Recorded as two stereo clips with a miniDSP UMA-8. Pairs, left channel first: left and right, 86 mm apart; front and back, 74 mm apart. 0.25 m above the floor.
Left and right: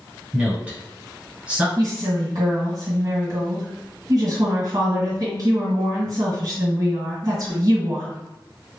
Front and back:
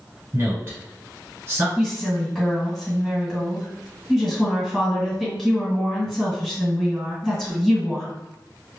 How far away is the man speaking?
About 1.3 m.